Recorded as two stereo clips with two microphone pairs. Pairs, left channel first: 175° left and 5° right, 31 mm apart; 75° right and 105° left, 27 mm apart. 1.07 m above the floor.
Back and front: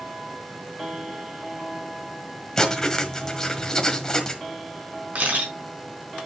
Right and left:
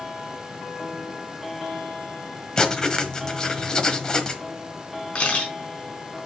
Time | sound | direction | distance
2.6 | writing | 130° right | 1.3 m
5.2 | a camera shutter | 40° right | 4.5 m